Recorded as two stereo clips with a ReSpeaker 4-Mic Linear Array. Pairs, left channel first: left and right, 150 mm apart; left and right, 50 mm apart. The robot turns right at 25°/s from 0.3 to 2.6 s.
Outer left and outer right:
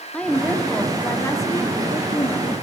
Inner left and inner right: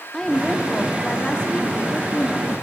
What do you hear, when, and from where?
0.1 s a woman speaking: 15° left, 1.1 m; by 2.5 s 70° left, 1.1 m